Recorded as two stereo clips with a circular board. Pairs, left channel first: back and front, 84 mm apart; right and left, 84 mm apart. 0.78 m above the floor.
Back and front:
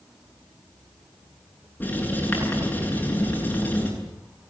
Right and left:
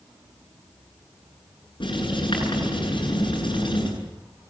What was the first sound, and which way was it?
Writing, 110° right.